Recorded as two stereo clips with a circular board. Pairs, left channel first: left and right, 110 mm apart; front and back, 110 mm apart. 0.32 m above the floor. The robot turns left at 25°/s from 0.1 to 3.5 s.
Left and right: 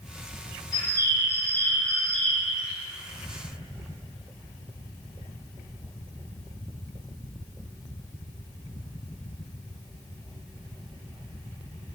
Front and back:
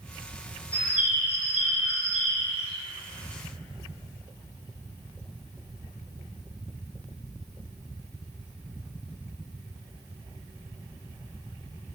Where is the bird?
40° left, 0.7 m; by 2.7 s 10° right, 0.7 m.